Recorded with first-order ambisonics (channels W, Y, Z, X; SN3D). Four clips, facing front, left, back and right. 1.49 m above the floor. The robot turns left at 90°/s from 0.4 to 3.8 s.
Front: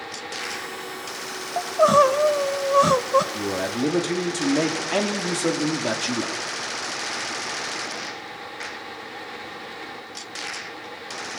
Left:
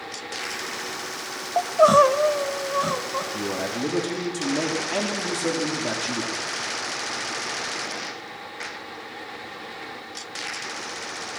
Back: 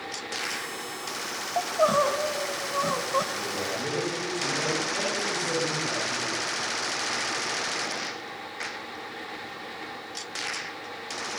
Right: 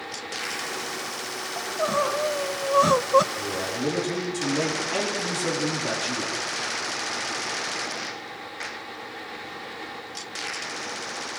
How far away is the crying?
About 0.8 m.